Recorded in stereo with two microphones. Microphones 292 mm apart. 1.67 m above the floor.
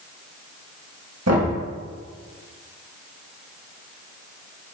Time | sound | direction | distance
1.3 | knocking | 60° right (ahead or behind) | 1.9 m